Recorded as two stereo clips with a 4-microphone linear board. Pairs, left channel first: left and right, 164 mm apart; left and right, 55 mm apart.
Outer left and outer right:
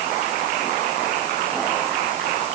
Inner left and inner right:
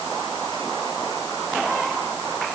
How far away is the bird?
No bird in this recording.